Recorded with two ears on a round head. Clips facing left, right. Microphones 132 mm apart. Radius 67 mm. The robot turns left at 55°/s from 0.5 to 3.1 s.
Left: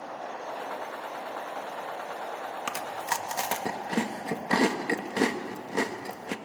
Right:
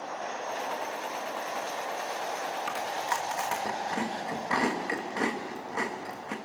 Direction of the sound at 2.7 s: 50° left (ahead or behind).